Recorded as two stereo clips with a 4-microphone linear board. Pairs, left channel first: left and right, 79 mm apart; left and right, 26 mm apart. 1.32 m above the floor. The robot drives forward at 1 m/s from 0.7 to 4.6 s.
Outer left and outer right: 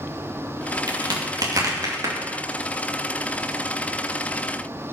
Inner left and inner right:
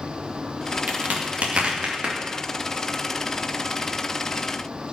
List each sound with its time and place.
0.9 s a crack: 65° right (ahead or behind), 2 m; by 2.1 s 40° right (ahead or behind), 3 m